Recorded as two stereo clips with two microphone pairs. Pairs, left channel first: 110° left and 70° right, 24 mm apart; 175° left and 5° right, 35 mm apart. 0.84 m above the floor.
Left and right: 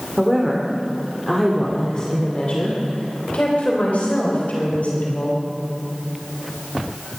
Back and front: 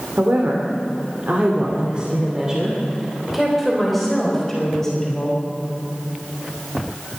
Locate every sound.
0.2 s a woman speaking: 10° left, 2.5 m; by 5.4 s 100° left, 4.5 m